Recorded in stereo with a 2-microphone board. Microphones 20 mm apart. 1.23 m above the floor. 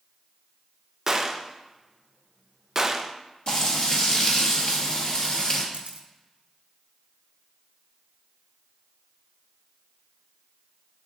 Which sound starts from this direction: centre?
A gunshot, at 1.1 s.